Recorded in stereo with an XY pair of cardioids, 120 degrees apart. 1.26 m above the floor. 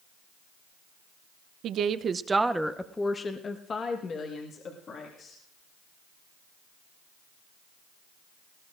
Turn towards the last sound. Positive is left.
turn(degrees=50)